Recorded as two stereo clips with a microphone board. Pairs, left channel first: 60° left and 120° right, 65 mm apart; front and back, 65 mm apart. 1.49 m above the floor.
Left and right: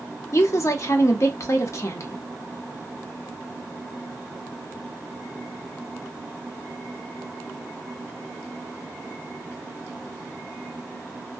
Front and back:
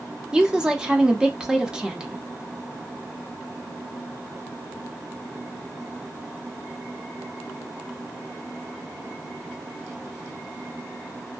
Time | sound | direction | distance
0.3 | a woman speaking | 105° left | 0.7 m